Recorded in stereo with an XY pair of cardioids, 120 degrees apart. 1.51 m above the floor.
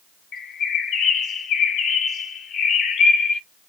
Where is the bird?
55° left, 0.9 m.